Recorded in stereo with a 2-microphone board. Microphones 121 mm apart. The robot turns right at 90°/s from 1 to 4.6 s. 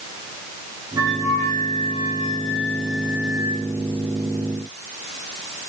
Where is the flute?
35° right, 9.5 m; by 3.6 s 160° right, 9.5 m.